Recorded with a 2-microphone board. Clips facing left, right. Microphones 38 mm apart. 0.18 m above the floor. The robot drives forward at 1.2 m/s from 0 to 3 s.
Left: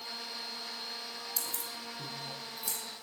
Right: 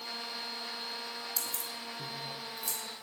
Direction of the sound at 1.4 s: 5° left (ahead or behind).